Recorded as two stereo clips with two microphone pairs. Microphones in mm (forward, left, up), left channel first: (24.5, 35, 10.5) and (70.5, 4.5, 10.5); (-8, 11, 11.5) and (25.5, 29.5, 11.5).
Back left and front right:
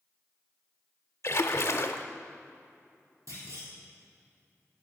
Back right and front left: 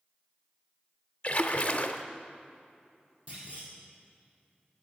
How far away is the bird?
I don't hear a bird.